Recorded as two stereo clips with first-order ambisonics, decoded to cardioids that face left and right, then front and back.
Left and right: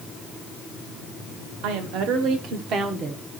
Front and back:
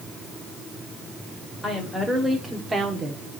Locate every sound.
1.6 s a woman speaking: 85° right, 2 m; by 3.4 s 155° right, 1.2 m